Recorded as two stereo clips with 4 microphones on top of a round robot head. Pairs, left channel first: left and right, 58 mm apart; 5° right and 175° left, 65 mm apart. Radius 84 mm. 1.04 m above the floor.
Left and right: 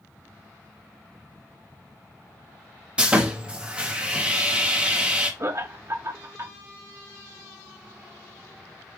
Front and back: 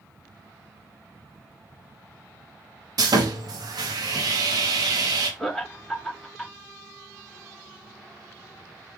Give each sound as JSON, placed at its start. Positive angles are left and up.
{"t": 3.0, "sound": "sawing", "azimuth_deg": -160, "distance_m": 1.3}
{"t": 5.4, "sound": "laughter", "azimuth_deg": -90, "distance_m": 1.0}